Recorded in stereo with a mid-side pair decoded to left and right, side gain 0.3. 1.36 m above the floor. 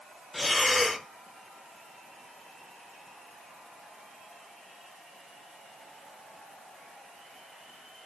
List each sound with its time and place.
0.3 s breathing: 30° left, 0.5 m